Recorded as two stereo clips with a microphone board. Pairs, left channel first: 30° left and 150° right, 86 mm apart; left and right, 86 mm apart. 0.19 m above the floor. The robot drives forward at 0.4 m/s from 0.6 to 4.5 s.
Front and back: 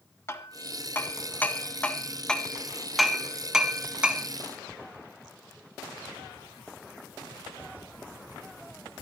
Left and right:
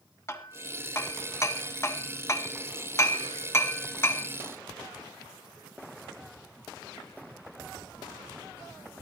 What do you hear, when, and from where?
0.3 s hammering: 60° left, 1.6 m; by 4.3 s 140° left, 1.8 m